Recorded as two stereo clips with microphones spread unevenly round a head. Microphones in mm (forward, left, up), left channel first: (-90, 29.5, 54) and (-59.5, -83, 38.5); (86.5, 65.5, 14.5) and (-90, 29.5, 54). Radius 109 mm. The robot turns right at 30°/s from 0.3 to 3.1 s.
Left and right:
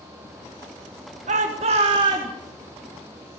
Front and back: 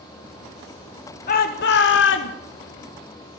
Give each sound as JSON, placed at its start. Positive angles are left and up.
{"t": 1.3, "sound": "a shout", "azimuth_deg": -40, "distance_m": 1.2}